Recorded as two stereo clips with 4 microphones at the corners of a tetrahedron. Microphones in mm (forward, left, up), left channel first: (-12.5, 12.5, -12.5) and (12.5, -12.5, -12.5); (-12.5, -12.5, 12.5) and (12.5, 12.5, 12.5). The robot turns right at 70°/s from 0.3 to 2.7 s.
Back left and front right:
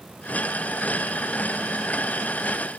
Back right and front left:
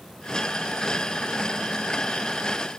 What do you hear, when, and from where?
Only background noise.